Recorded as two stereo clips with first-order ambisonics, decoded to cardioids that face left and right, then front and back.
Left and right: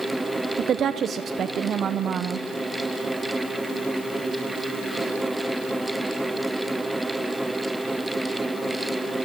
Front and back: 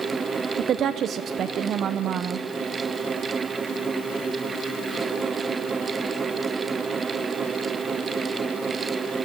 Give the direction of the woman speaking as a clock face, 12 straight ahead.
5 o'clock.